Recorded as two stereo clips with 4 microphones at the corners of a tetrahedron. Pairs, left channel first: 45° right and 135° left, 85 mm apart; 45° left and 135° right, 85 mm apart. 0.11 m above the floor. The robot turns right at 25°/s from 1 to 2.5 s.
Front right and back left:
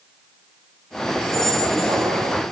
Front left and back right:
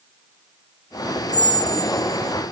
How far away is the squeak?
About 0.8 m.